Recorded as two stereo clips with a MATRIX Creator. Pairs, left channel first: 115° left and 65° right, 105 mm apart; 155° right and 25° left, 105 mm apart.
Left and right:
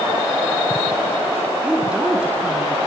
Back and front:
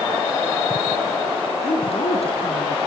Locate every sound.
1.6 s a woman speaking: 145° right, 4 m